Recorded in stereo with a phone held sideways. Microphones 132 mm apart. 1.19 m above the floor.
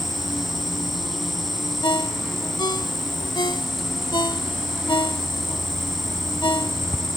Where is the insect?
Centre (ahead or behind).